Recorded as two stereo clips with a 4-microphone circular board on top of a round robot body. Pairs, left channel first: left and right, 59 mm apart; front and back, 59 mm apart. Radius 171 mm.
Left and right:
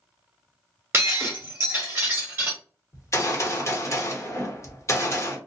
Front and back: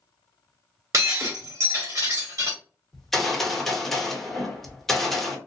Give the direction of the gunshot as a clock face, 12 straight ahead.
9 o'clock.